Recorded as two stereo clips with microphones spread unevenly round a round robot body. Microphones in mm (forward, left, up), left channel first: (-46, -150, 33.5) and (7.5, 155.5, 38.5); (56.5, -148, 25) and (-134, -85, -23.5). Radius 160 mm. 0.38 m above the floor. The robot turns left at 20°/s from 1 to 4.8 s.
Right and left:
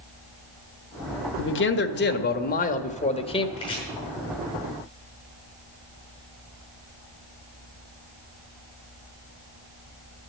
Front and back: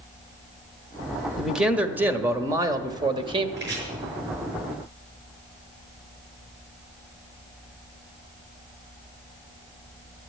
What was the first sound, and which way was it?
A man speaking, 125° right.